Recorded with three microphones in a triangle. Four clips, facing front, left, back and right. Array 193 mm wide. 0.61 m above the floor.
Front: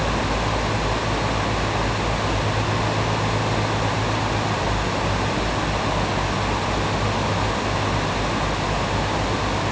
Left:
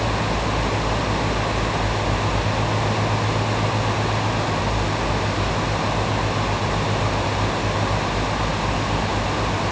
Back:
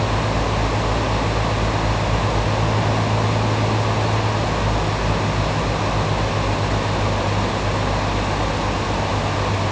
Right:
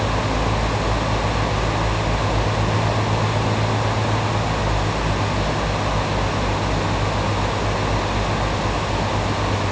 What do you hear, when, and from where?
Only background noise.